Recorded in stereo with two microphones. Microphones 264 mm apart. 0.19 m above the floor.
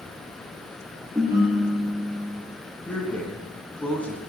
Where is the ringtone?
10° right (ahead or behind), 1.6 m.